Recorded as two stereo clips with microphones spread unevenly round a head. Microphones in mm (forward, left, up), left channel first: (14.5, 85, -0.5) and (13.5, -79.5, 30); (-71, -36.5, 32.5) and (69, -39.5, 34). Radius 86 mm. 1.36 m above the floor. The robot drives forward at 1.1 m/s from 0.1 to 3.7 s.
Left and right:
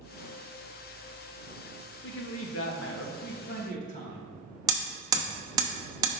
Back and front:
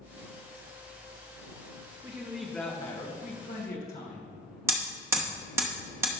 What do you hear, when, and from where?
2.0 s a man speaking: 65° left, 1.3 m; by 4.3 s 140° left, 1.8 m
4.7 s hammering: 60° right, 0.8 m